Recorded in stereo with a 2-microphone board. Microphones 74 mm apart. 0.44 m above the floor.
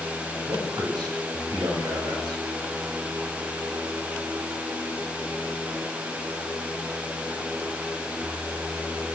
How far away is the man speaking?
About 6.5 m.